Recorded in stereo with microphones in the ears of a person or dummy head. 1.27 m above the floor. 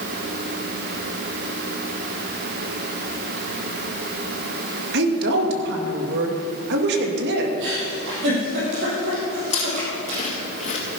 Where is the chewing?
40° left (ahead or behind), 2.5 m.